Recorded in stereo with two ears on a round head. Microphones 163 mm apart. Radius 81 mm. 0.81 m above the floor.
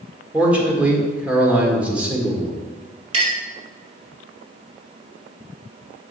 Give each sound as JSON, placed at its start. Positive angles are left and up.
{"t": 0.3, "sound": "a man speaking", "side_deg": -10, "distance_m": 1.8}
{"t": 3.1, "sound": "a clink", "side_deg": -35, "distance_m": 2.5}